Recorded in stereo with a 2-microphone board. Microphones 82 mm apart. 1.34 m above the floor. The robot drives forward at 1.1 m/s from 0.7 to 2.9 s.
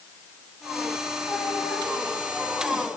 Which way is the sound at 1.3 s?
15° left (ahead or behind).